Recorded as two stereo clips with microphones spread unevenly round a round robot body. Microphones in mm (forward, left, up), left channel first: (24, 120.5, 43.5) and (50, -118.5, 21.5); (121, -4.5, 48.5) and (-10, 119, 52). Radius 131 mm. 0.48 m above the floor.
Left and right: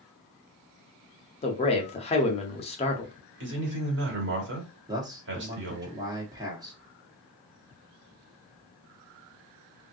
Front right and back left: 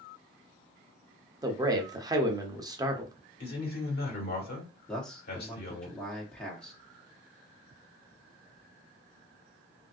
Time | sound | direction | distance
1.4 | a man speaking | 110° left | 0.8 m
3.4 | a man speaking | 60° right | 1.4 m
4.9 | a man speaking | 120° right | 1.0 m